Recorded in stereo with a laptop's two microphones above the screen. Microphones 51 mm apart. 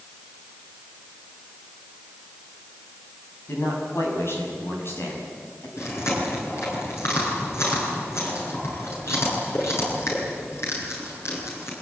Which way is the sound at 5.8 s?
65° left (ahead or behind).